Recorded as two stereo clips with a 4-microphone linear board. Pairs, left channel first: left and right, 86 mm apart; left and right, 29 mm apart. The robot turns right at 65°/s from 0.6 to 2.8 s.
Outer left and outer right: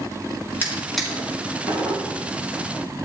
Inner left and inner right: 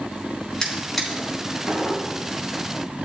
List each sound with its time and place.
0.6 s a drawer: 25° left (ahead or behind), 4.5 m; by 2.0 s 65° right (ahead or behind), 4.5 m